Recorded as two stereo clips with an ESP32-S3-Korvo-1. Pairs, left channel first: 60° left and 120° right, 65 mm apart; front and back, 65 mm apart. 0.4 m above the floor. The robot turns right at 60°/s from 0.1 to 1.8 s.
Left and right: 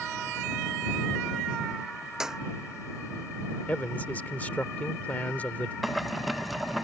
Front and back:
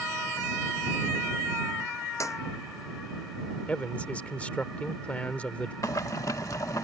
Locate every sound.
2.2 s a clap: 40° right
3.7 s a man speaking: 40° left
5.8 s boiling: 30° right